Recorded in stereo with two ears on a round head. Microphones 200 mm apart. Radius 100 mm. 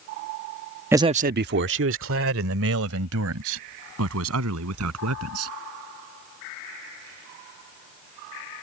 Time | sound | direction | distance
0.9 | a man speaking | 10° right (ahead or behind) | ?